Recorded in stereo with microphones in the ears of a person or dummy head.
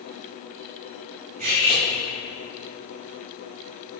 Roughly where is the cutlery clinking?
Right.